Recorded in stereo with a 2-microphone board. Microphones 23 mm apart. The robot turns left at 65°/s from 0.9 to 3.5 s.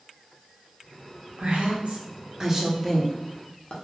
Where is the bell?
No bell in this recording.